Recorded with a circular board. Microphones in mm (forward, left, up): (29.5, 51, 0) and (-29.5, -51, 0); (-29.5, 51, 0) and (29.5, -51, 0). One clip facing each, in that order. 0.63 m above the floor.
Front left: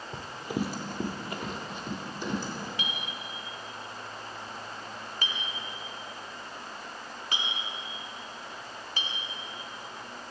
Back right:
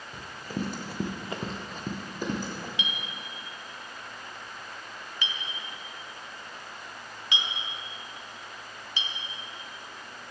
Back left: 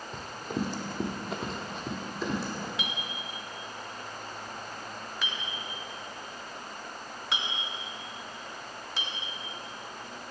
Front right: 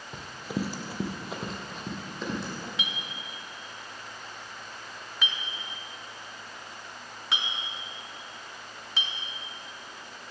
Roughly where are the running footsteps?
Ahead.